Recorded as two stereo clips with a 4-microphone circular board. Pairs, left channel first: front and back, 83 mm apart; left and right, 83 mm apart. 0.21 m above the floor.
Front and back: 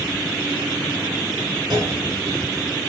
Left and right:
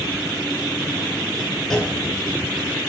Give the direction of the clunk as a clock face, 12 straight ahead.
6 o'clock.